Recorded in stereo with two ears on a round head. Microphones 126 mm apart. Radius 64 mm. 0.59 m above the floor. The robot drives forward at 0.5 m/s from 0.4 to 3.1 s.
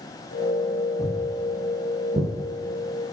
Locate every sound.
1.0 s footsteps: 30° left (ahead or behind), 1.1 m; by 2.3 s 45° right (ahead or behind), 0.7 m